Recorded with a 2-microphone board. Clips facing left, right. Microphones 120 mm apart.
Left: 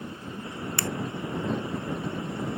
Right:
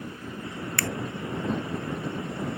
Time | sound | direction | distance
0.8 | a finger snap | 25° left (ahead or behind) | ?